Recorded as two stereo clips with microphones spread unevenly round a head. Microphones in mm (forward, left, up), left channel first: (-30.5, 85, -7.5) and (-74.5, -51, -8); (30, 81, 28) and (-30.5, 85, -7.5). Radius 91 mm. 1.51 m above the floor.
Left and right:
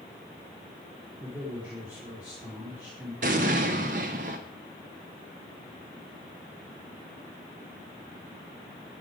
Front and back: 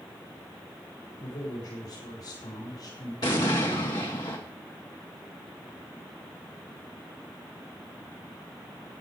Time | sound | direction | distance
1.2 | a man speaking | 25° right | 3.5 m
3.2 | an explosion | 60° right | 1.1 m